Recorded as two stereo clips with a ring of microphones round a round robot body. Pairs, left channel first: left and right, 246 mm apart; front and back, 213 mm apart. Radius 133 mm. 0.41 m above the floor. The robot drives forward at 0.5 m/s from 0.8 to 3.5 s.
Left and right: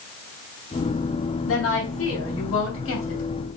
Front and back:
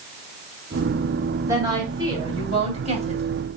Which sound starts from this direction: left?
A woman speaking, at 1.5 s.